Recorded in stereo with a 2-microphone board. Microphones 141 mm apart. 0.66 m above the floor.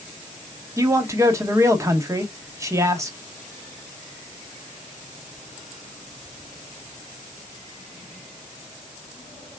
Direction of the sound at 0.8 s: 20° right (ahead or behind).